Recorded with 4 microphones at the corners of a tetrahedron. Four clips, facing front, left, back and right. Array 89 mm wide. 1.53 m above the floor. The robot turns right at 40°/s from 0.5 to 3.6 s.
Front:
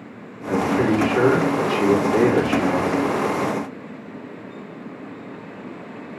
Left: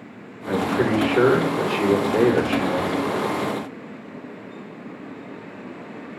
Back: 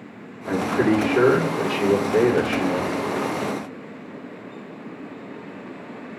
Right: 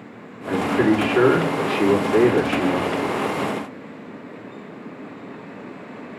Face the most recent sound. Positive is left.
turn(degrees=-5)